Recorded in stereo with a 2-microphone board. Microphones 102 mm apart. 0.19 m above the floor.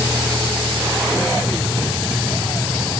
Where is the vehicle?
35° right (ahead or behind); by 3.0 s 30° right (ahead or behind).